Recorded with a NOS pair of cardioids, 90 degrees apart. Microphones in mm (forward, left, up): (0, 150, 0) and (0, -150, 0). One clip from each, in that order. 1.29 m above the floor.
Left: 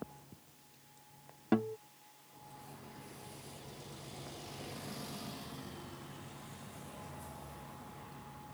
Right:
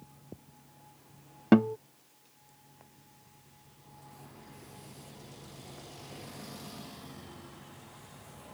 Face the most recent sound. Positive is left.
turn(degrees=-60)